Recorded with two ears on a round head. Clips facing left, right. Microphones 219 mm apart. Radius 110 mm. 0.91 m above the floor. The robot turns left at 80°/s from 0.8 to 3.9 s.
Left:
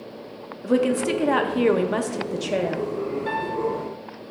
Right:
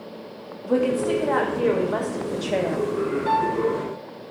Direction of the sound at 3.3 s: 20° left.